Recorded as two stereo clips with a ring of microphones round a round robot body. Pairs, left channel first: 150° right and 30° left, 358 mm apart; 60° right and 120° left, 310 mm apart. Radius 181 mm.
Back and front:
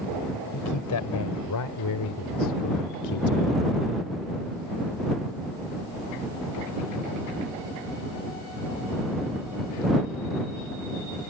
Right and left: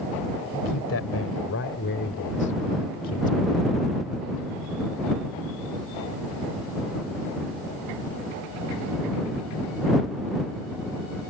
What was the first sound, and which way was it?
A man speaking, 110° right.